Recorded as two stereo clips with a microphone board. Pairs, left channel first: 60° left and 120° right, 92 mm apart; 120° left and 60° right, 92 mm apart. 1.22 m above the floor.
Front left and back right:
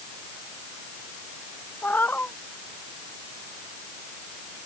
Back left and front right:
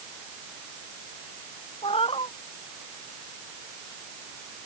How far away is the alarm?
I don't hear an alarm.